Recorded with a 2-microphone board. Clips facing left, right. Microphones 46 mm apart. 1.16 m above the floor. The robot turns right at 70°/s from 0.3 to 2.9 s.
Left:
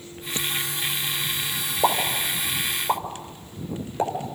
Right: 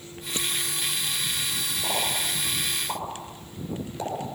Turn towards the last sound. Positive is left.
turn(degrees=35)  # may be behind; listen again after turning